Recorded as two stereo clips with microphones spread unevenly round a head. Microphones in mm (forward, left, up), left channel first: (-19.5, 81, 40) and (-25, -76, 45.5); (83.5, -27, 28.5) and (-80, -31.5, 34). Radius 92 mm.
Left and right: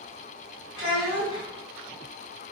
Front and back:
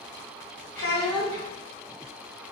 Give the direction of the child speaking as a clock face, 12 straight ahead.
9 o'clock.